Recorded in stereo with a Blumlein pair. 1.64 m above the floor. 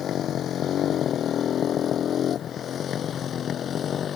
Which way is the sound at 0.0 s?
30° left.